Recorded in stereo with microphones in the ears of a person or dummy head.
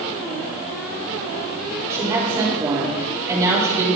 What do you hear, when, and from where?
1.9 s a woman speaking: 15° right (ahead or behind), 4.5 m